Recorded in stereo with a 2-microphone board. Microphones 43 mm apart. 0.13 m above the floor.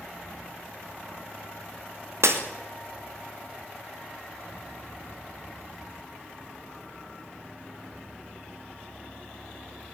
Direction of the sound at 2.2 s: 80° right.